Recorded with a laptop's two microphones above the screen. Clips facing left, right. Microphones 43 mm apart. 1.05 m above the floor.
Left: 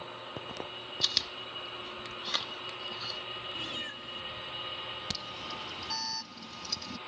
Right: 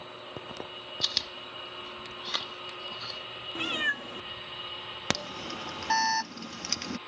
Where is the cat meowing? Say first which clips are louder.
Right 9 dB; 60° right (ahead or behind).